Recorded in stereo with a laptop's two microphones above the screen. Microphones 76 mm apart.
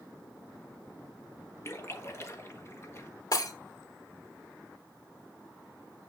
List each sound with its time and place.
1.6 s a splash: 35° left (ahead or behind), 1.4 m
3.3 s breaking glass: 55° left (ahead or behind), 2 m